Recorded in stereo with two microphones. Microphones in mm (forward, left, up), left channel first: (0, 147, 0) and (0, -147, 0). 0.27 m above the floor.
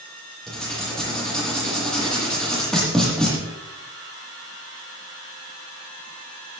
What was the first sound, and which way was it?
Writing, centre (ahead or behind).